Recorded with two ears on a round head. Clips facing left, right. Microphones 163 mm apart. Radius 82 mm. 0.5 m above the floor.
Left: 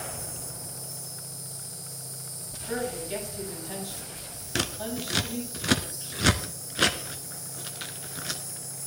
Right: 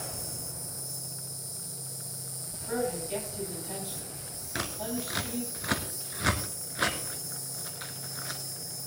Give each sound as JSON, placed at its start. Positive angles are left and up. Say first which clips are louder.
{"t": 0.0, "sound": "an insect", "louder": "left 2 dB", "side_deg": -25, "distance_m": 3.5}
{"t": 2.7, "sound": "a woman speaking", "louder": "even", "side_deg": 5, "distance_m": 8.5}
{"t": 4.5, "sound": "scissors", "louder": "left 2 dB", "side_deg": 35, "distance_m": 1.2}